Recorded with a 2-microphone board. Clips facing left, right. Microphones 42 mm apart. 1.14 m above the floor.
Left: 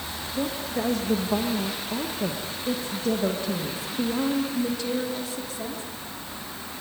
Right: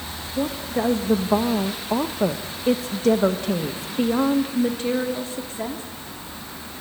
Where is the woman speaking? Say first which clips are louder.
Right 4 dB; 15° right (ahead or behind), 1.8 m; by 5.8 s 40° right (ahead or behind), 3 m.